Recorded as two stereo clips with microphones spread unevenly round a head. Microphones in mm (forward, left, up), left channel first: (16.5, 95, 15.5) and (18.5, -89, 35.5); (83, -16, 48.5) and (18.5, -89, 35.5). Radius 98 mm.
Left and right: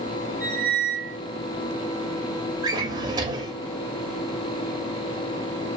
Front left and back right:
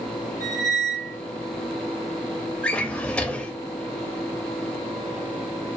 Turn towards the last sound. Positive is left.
turn(degrees=-25)